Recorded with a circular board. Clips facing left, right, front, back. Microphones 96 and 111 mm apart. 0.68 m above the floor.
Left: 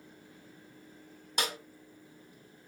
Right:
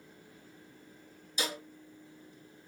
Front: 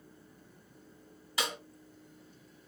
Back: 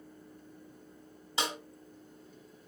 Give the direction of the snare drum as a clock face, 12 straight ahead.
8 o'clock.